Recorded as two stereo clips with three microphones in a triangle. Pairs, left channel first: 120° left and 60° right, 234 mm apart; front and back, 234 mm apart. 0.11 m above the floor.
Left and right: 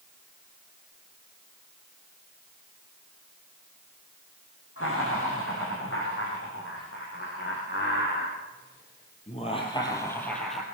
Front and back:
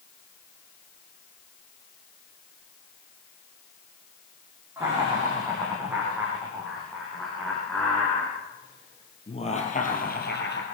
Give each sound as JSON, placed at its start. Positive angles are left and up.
{"t": 4.8, "sound": "laughter", "azimuth_deg": 100, "distance_m": 7.0}